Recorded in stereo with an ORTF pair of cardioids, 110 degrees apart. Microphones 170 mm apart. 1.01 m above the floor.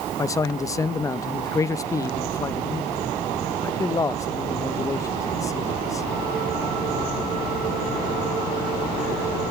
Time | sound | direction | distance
0.2 | a man speaking | 20° left | 0.6 m